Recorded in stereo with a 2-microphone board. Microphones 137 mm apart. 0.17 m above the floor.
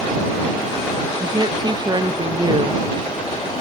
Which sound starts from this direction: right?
A woman speaking, at 1.2 s.